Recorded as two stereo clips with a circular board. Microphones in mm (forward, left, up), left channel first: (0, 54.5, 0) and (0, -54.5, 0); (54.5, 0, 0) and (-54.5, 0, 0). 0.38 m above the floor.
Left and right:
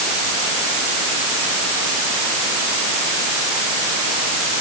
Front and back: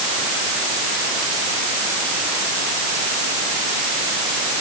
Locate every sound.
Only background noise.